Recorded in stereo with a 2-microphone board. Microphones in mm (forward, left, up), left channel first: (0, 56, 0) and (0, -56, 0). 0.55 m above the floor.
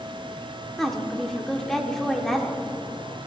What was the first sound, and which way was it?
A woman speaking, 5° left (ahead or behind).